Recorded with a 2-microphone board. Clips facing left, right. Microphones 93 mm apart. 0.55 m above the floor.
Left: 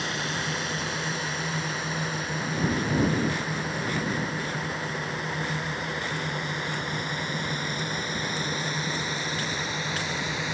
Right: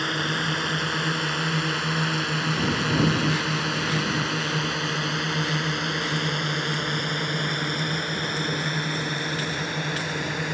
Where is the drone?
55° right (ahead or behind).